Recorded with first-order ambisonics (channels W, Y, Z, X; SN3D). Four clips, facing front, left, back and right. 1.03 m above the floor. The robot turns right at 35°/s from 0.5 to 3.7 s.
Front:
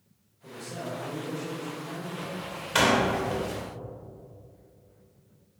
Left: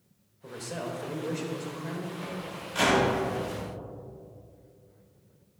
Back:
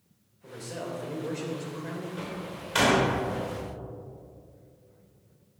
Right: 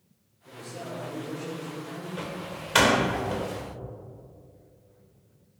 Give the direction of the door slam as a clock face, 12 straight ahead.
3 o'clock.